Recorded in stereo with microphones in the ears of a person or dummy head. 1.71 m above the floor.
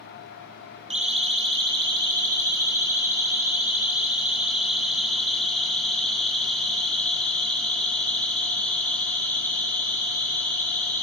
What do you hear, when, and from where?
0.9 s a siren: 30° right (ahead or behind), 2.5 m; by 11.0 s 15° left (ahead or behind), 7 m